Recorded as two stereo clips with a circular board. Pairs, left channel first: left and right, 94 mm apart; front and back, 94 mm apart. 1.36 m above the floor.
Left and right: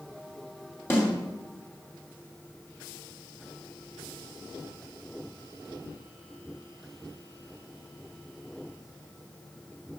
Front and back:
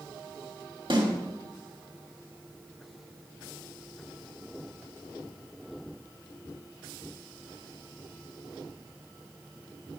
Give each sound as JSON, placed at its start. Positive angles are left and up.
{"t": 0.9, "sound": "a snare drum", "azimuth_deg": 150, "distance_m": 3.0}